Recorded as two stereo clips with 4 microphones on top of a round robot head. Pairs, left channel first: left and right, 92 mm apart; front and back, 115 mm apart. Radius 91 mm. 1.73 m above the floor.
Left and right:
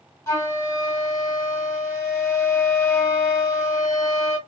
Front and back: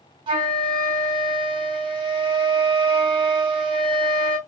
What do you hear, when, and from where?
0.3 s a flute: 135° left, 3.5 m